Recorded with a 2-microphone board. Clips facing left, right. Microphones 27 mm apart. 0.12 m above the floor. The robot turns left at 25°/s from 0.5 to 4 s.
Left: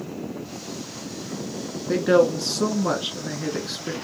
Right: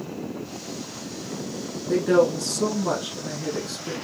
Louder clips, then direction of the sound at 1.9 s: Left 1 dB; 120° left.